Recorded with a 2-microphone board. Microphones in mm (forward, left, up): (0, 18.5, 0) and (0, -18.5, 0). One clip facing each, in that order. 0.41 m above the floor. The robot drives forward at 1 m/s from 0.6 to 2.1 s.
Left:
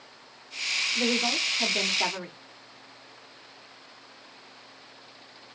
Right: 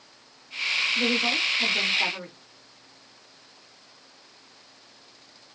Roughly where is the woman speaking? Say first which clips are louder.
Right 2 dB; centre.